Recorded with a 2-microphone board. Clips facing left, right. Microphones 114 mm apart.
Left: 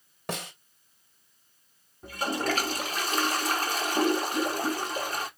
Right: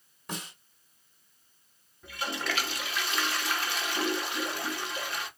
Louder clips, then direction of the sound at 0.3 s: Left 5 dB; 75° left (ahead or behind).